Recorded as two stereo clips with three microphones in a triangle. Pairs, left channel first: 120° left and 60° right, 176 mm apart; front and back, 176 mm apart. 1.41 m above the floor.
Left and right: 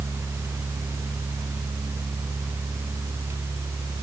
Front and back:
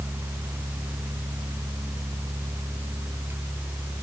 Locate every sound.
Only background noise.